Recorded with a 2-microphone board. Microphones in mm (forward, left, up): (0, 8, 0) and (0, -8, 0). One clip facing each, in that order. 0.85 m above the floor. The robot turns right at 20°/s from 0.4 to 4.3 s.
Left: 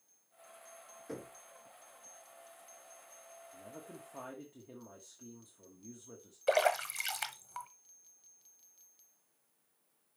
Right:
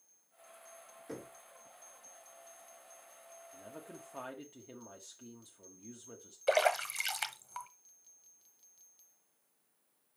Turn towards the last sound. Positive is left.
turn(degrees=-15)  # may be behind; listen again after turning